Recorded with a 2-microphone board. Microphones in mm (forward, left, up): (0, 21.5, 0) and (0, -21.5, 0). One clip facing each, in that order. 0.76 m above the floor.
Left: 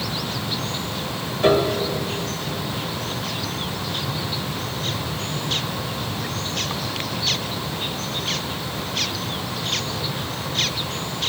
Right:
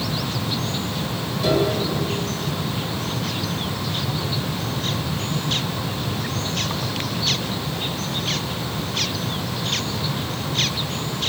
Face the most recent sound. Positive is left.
turn(degrees=40)  # may be behind; listen again after turning